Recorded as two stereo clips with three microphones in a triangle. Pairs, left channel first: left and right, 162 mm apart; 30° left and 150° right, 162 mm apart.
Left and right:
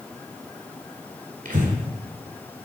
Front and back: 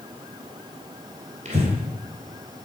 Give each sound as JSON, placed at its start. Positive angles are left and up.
{"t": 1.4, "sound": "breathing", "azimuth_deg": -115, "distance_m": 2.0}